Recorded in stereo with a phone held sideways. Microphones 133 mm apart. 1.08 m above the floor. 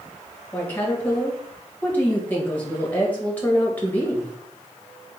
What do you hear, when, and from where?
0.5 s a woman speaking: 10° left (ahead or behind), 1.3 m